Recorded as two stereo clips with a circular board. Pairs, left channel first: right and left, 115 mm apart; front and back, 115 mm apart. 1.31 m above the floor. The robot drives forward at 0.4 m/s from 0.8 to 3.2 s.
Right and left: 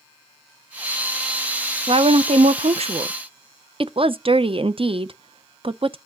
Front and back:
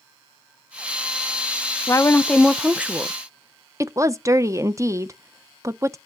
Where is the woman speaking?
60° left, 0.5 m; by 6.0 s 120° left, 0.5 m.